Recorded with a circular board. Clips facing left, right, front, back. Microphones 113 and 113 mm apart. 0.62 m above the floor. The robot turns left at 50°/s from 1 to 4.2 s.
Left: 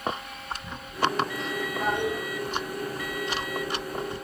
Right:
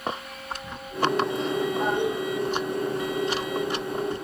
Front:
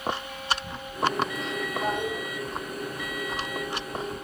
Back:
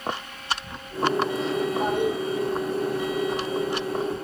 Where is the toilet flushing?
140° right, 6 m; by 2.2 s 160° right, 6 m.